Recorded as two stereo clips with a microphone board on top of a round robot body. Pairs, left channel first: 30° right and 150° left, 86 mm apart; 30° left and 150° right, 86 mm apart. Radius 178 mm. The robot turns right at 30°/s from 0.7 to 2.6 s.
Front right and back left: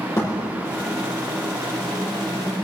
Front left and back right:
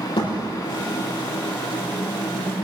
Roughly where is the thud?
Ahead left.